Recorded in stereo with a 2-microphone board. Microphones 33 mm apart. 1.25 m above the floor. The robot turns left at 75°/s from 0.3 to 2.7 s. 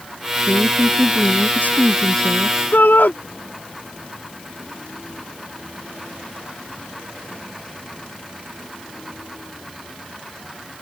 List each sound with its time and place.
0.5 s a woman speaking: 145° left; by 2.6 s 15° right
2.7 s a shout: 70° left (ahead or behind)